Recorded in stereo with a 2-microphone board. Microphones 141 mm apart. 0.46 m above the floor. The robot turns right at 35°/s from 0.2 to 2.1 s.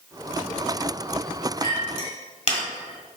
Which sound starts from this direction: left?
A clink, at 1.6 s.